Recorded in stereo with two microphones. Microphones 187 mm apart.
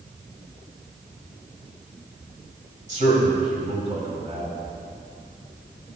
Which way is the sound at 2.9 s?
40° right (ahead or behind).